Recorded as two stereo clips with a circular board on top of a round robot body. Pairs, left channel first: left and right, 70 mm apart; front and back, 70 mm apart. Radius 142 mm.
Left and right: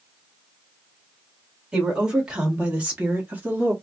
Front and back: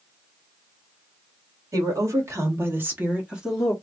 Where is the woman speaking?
165° right, 1.9 m; by 3.7 s 85° right, 1.3 m.